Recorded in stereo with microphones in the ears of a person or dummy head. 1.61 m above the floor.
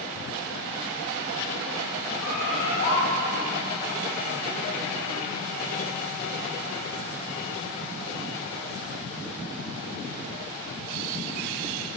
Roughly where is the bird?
Left.